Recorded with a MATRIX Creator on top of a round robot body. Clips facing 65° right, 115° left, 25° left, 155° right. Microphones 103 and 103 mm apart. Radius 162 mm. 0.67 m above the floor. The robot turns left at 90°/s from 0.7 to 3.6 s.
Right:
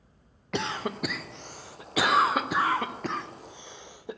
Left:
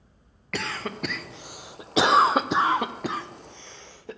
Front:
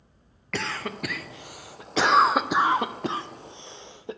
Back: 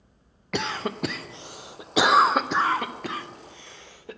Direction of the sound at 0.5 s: 105° right.